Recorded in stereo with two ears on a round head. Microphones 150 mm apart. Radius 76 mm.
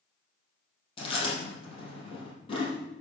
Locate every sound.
1.0 s chewing: 30° left (ahead or behind), 4.5 m